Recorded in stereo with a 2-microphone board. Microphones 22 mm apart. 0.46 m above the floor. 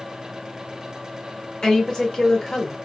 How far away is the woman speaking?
About 1.2 m.